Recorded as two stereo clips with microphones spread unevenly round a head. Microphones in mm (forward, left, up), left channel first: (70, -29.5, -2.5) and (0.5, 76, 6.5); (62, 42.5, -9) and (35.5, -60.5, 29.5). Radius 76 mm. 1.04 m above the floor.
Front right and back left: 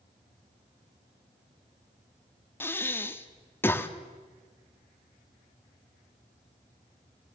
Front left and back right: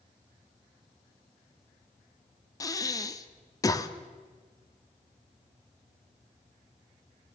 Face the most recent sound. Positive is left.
turn(degrees=15)